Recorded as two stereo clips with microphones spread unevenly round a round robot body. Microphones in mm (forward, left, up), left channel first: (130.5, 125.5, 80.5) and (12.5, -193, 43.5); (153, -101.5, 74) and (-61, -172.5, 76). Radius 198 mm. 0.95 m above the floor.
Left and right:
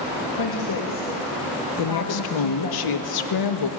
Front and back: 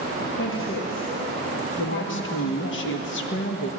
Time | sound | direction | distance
0.4 | a woman speaking | 50° left | 1.7 m
1.8 | a woman speaking | 55° left | 1.3 m